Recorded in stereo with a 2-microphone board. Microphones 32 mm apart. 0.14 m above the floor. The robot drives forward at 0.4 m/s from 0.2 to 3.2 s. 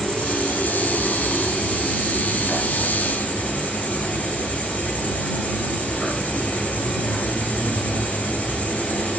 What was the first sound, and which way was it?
An insect, 40° left (ahead or behind).